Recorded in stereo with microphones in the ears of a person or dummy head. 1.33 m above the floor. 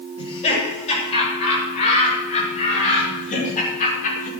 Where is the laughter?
35° left (ahead or behind), 7 m; by 4.3 s 45° left (ahead or behind), 4.5 m.